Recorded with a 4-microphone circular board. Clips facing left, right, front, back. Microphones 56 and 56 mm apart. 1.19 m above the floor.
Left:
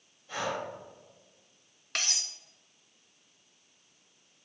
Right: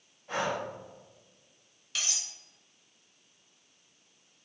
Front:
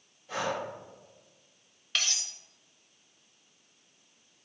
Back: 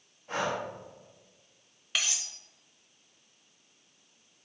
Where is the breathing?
135° right, 1.8 m.